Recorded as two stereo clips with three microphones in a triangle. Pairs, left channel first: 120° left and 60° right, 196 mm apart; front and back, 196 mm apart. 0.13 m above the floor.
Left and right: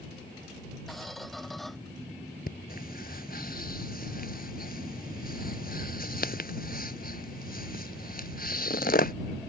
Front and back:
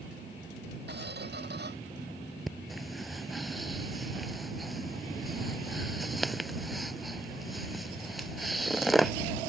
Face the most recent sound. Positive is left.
turn(degrees=90)